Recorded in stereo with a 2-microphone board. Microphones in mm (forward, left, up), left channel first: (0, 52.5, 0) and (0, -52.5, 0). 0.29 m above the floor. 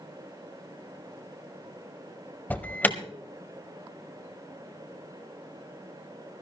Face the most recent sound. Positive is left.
turn(degrees=15)  # may be behind; listen again after turning